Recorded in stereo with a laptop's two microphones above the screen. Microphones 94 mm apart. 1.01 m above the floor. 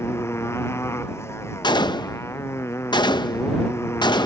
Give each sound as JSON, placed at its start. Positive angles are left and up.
{"t": 0.0, "sound": "a motorcycle", "side_deg": 25}
{"t": 1.6, "sound": "a gunshot", "side_deg": 50}